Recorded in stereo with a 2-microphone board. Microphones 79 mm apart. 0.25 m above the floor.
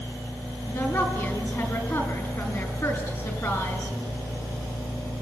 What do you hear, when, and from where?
0.7 s a woman speaking: 30° left (ahead or behind), 4 m